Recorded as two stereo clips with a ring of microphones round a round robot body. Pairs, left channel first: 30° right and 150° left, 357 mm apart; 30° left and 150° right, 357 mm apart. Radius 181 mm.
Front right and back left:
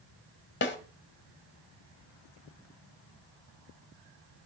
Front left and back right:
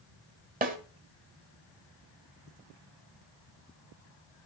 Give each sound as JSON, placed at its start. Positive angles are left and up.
{"t": 0.6, "sound": "a snare drum", "azimuth_deg": -85, "distance_m": 1.4}